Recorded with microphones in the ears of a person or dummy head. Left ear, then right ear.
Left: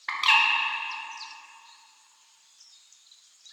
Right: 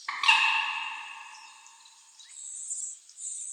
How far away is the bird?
About 0.8 m.